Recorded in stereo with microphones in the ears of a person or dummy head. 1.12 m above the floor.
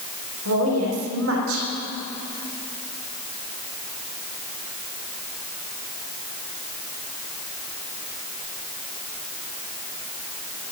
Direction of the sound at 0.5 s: 90° right.